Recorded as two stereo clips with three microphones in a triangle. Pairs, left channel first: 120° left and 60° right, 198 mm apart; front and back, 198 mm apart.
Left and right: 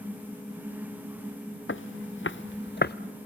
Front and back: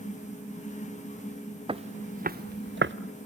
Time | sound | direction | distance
1.7 | footsteps | 115° left | 0.9 m